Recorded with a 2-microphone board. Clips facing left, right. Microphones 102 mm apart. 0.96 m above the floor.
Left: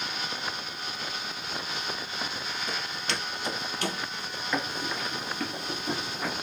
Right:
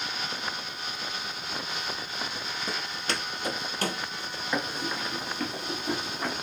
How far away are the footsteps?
About 1.1 m.